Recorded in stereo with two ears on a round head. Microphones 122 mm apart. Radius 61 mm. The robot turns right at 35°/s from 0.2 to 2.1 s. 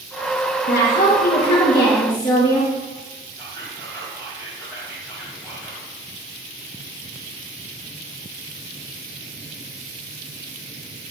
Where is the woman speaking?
100° left, 4.5 m; by 2.7 s 150° left, 4.5 m.